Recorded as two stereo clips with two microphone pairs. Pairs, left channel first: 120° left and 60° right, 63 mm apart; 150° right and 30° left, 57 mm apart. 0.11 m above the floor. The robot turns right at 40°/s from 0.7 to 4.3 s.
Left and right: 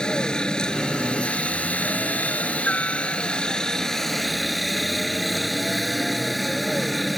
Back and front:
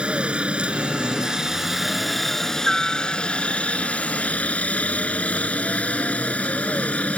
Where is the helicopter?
65° left; by 7.2 s 150° right.